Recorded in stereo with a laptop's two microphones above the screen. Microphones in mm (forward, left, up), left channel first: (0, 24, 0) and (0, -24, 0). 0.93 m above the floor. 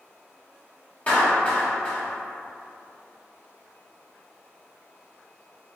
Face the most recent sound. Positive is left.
turn(degrees=30)  # may be behind; listen again after turning